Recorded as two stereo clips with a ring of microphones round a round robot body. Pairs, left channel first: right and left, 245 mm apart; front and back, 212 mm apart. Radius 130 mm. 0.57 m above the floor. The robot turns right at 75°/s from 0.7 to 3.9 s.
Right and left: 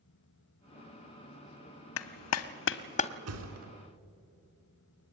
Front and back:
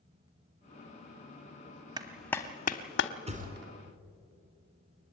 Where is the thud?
120° left, 3.5 m; by 3.7 s 155° left, 3.5 m.